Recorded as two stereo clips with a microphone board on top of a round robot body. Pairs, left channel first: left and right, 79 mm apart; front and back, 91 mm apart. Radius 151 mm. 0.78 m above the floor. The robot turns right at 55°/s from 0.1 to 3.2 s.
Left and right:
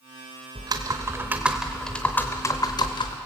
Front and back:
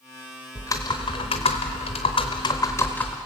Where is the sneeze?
No sneeze in this recording.